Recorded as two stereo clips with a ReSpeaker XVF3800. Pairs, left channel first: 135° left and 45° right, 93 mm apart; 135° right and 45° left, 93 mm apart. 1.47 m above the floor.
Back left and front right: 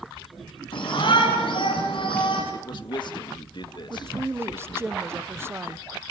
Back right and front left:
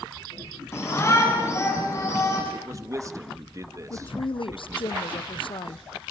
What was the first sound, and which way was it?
A shout, 165° left.